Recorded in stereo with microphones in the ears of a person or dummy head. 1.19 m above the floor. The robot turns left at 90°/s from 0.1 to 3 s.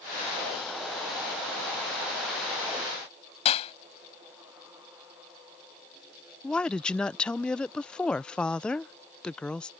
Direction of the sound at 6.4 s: 10° left (ahead or behind).